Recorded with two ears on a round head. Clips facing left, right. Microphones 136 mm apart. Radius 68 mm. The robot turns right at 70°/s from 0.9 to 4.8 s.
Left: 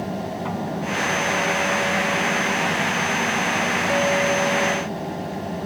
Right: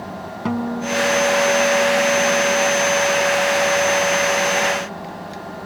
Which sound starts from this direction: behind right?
A guitar, at 0.5 s.